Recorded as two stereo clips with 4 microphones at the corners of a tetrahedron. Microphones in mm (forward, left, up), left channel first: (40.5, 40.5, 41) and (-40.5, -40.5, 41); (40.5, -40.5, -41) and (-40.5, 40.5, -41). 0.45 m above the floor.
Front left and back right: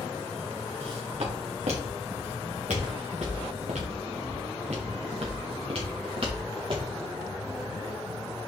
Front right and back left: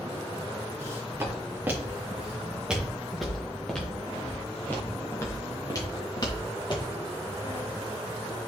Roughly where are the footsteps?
Behind.